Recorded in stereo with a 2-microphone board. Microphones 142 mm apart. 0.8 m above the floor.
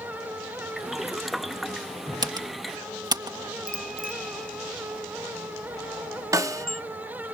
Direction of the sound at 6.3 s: 25° right (ahead or behind).